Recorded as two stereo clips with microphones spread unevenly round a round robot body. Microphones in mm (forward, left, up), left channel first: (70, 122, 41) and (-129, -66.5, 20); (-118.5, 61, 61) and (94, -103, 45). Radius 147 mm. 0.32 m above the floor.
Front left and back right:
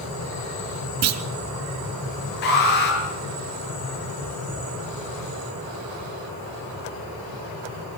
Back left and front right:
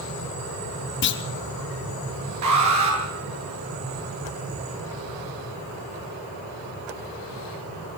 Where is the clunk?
170° right, 1.1 m.